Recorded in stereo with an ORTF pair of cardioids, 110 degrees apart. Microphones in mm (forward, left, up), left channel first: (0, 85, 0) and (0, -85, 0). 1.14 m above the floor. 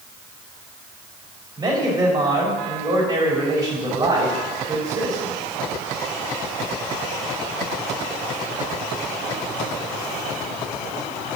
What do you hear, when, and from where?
1.6 s a man speaking: 30° right, 3.5 m